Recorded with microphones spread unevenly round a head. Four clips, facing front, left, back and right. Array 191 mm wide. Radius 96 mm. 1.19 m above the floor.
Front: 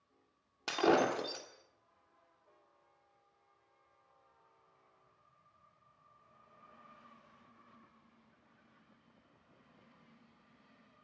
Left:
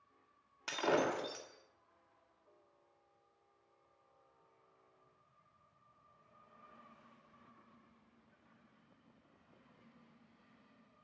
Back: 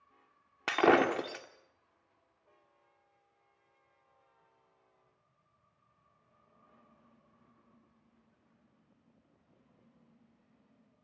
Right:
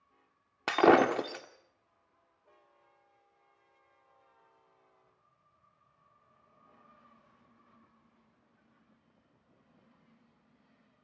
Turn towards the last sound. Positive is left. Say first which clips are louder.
# right 11 dB, back 4 dB
turn(degrees=-105)